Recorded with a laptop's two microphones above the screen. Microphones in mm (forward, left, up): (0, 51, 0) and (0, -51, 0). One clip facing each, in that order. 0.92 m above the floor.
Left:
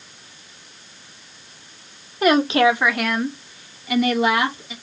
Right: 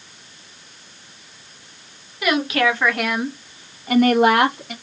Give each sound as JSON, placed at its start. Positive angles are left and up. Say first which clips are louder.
{"t": 2.2, "sound": "a woman speaking", "louder": "left 4 dB", "side_deg": 40, "distance_m": 0.9}